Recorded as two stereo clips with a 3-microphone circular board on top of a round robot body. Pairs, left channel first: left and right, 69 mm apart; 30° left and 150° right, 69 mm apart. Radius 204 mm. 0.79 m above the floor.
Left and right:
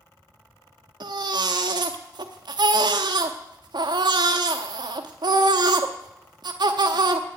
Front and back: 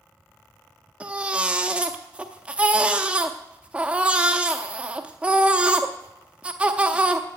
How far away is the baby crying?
About 0.7 m.